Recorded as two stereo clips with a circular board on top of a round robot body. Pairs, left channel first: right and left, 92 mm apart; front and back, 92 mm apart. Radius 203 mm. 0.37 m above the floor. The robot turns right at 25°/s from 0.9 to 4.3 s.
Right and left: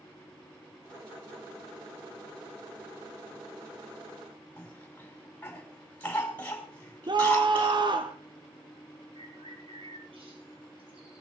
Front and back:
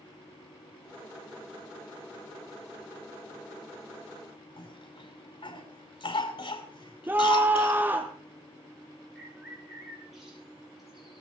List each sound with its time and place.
4.6 s a cough: 20° right, 5.5 m
7.1 s a scream: 115° left, 1.4 m
9.2 s a bird: 95° left, 6 m